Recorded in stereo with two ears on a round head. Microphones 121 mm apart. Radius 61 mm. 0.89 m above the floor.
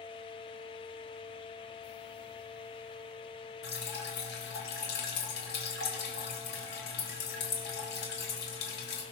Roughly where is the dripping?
Left.